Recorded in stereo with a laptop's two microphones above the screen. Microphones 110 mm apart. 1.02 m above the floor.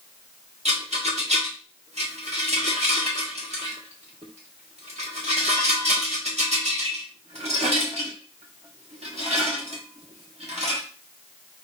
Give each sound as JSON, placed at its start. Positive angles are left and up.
{"t": 0.7, "sound": "a rattle", "side_deg": -85, "distance_m": 1.6}